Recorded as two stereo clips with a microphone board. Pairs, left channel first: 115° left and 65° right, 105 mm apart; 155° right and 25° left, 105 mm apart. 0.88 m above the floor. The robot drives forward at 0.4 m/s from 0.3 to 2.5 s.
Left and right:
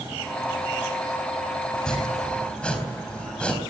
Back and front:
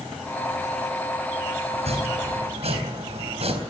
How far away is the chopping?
About 4 m.